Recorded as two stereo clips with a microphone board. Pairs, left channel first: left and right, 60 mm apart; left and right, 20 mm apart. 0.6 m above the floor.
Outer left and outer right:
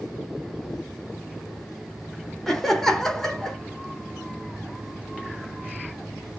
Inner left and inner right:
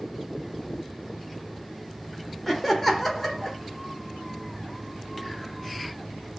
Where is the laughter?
5° left (ahead or behind), 0.7 m.